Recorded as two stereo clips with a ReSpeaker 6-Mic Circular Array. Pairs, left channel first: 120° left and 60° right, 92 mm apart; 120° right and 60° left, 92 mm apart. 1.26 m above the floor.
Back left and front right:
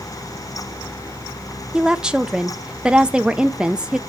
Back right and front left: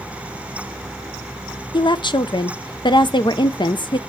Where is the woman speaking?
140° right, 0.6 m.